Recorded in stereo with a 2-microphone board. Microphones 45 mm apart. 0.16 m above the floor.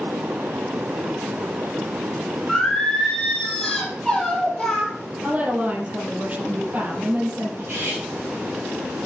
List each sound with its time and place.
2.5 s singing: 5° left (ahead or behind), 4.5 m
5.2 s a woman speaking: 35° right (ahead or behind), 5.5 m
7.6 s cutlery clinking: 60° right (ahead or behind), 5 m